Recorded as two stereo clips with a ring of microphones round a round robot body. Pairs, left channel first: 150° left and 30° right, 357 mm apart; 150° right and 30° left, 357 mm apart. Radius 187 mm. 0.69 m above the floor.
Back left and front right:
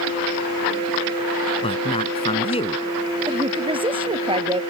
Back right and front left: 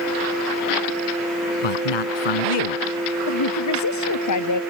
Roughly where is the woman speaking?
Right.